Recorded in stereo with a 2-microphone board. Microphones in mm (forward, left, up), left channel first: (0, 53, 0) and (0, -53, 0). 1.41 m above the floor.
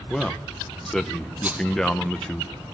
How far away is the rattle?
About 2.5 m.